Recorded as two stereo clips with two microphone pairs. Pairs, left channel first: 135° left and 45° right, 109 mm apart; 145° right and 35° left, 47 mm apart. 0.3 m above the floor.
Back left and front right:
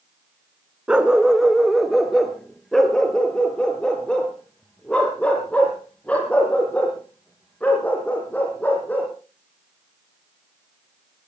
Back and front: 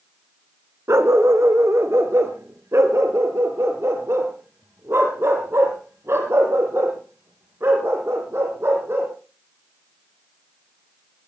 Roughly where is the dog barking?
Ahead left.